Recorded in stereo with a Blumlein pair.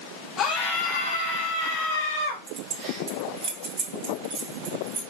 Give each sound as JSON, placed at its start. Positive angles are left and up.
{"t": 0.4, "sound": "a scream", "azimuth_deg": 30, "distance_m": 0.6}
{"t": 2.5, "sound": "keys jangling", "azimuth_deg": -40, "distance_m": 1.1}